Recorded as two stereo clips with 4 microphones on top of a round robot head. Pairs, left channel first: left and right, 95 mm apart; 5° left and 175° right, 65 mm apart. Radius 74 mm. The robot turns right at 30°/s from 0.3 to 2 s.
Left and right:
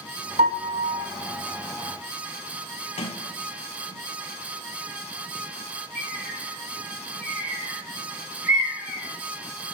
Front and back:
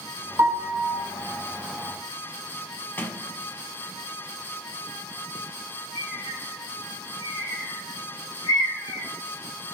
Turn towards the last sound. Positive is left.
turn(degrees=-25)